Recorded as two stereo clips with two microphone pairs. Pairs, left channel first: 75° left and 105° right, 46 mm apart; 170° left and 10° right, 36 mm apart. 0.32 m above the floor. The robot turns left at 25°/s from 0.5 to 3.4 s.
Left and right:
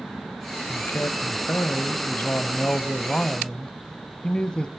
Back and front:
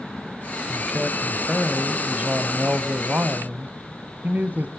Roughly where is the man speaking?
Left.